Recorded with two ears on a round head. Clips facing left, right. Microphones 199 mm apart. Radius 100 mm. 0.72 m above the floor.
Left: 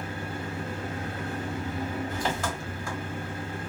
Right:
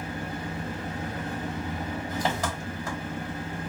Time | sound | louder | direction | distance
0.0 | an engine running | right 1 dB | 35° right (ahead or behind) | 1.3 m